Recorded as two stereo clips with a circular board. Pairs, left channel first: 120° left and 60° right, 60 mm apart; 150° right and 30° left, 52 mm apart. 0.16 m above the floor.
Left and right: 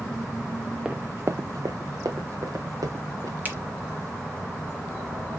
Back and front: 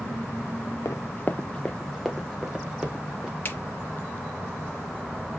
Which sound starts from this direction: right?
A finger snap, at 3.5 s.